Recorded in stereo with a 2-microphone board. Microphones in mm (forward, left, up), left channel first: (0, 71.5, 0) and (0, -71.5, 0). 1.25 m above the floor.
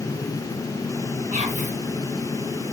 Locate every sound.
1.3 s whispering: 60° right (ahead or behind), 1.0 m